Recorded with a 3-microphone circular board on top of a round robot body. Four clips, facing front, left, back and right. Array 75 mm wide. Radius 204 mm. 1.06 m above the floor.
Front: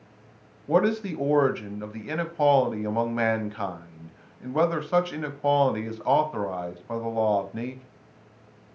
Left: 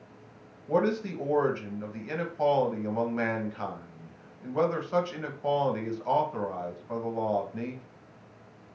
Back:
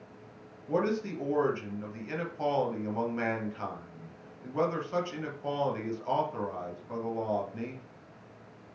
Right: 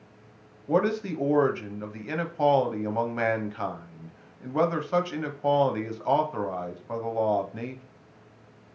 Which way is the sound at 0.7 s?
20° right.